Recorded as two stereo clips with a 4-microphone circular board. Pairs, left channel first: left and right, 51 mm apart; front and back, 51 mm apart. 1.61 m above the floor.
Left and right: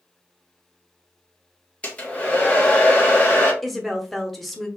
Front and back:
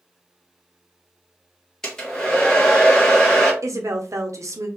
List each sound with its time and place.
1.8 s a hair dryer: 60° left, 1.1 m
3.6 s a woman speaking: straight behind, 0.8 m